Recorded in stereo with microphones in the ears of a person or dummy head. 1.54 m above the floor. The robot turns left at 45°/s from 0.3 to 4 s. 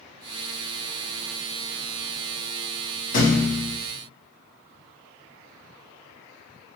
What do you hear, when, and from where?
3.1 s a thud: 50° left (ahead or behind), 1.2 m; by 3.8 s 35° left (ahead or behind), 1.2 m